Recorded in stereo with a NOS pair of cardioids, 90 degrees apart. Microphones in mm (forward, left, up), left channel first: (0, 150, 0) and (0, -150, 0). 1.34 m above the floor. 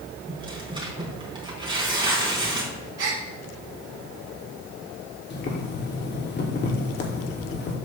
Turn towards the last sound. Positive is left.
turn(degrees=35)